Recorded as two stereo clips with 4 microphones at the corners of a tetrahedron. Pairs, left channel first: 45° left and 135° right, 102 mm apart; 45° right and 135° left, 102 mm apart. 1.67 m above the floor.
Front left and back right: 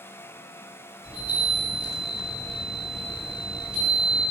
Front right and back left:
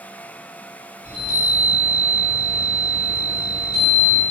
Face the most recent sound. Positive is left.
turn(degrees=145)